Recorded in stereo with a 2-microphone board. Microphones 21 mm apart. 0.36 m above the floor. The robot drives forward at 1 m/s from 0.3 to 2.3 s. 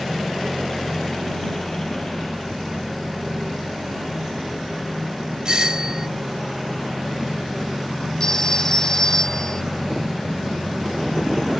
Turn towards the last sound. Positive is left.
turn(degrees=25)  # may be behind; listen again after turning